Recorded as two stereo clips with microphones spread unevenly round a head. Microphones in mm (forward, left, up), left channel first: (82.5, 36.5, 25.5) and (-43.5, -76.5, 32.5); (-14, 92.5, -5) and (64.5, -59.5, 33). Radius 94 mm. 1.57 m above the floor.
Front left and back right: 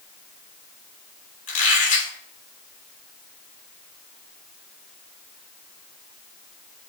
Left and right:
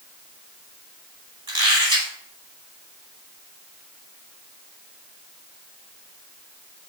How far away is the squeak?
About 3 m.